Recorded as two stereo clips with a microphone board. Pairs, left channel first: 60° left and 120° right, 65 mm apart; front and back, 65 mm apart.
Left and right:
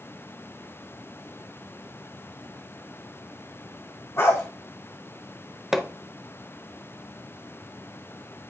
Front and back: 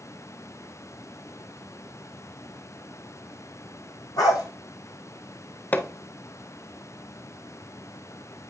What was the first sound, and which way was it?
A dog barking, 10° left.